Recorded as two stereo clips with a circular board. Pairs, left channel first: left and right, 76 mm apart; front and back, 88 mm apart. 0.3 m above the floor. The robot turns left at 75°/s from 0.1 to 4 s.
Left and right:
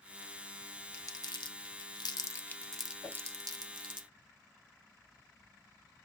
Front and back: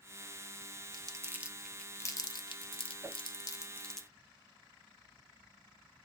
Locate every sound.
0.9 s crumpling: 140° left, 0.5 m; by 4.0 s 90° right, 0.5 m
3.0 s a whoosh: 120° left, 0.6 m; by 3.2 s 105° left, 0.6 m